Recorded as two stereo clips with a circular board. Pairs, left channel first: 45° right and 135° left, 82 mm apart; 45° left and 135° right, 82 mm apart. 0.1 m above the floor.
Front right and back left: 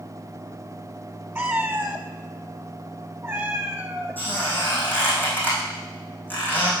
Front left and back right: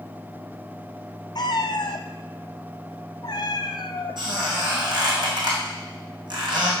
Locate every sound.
1.4 s a cat meowing: 65° left, 0.8 m
4.2 s a squeak: 110° right, 3.5 m